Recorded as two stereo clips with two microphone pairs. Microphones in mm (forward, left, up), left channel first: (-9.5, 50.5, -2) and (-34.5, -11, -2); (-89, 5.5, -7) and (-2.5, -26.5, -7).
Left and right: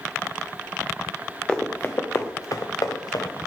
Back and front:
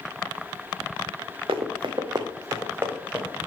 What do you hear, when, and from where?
1.5 s running footsteps: 10° right, 0.9 m; by 3.5 s 60° left, 1.5 m